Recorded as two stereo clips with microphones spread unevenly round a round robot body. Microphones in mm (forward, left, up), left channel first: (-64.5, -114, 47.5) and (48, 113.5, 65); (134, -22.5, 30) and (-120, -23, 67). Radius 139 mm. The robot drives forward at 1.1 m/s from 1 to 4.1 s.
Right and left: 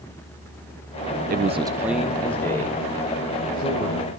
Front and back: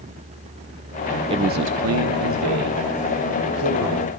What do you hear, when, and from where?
1.3 s a man speaking: 105° left, 0.7 m; by 4.1 s 170° left, 3.5 m